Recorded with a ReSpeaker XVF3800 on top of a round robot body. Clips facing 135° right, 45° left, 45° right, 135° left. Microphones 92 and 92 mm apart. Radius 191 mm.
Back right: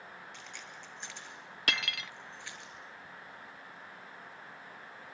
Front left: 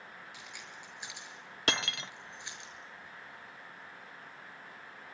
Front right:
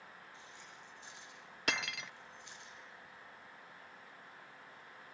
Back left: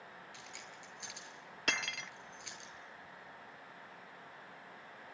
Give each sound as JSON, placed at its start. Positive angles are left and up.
{"t": 0.3, "sound": "keys jangling", "azimuth_deg": 130, "distance_m": 7.0}
{"t": 1.7, "sound": "cutlery clinking", "azimuth_deg": 40, "distance_m": 0.6}